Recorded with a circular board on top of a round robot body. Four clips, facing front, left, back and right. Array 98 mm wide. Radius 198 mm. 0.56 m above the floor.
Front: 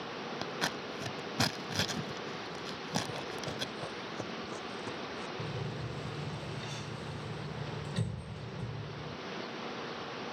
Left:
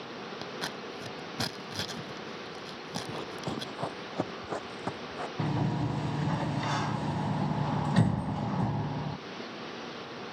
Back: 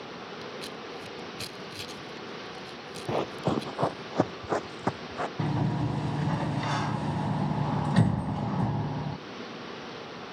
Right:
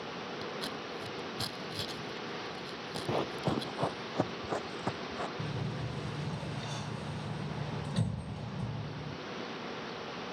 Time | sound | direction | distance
0.4 | scissors | 20° left | ?
3.1 | running footsteps | 155° right | ?
5.4 | a sliding door | 140° left | ?